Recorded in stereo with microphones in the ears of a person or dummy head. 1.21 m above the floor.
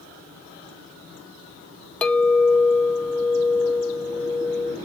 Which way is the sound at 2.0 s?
10° left (ahead or behind).